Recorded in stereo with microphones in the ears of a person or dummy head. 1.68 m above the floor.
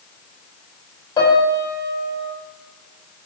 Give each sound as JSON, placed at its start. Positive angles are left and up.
{"t": 1.2, "sound": "a piano", "side_deg": 30, "distance_m": 3.0}